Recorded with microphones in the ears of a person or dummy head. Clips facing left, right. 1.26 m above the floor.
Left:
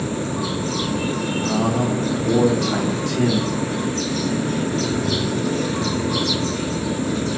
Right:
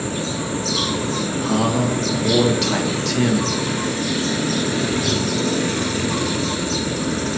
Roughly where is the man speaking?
Right.